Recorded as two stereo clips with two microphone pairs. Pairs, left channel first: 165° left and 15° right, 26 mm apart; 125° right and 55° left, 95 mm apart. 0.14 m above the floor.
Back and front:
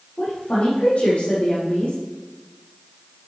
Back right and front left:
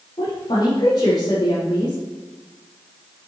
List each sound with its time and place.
0.2 s a woman speaking: 160° right, 4 m